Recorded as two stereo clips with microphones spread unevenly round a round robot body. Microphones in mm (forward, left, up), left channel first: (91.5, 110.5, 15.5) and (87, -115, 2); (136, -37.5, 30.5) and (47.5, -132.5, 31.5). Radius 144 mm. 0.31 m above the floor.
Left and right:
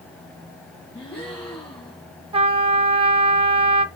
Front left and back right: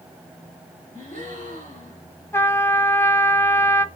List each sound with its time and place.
0.9 s a gasp: 175° left, 4.5 m
2.3 s a trumpet: 25° right, 0.8 m